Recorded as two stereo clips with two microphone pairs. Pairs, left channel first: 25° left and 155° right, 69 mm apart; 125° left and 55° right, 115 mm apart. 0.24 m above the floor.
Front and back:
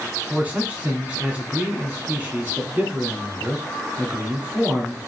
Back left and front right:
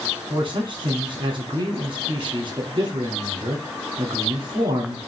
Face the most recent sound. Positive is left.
turn(degrees=-90)